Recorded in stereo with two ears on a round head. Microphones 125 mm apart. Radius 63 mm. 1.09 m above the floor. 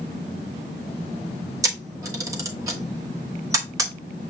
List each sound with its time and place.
1.6 s a camera shutter: 25° right (ahead or behind), 0.9 m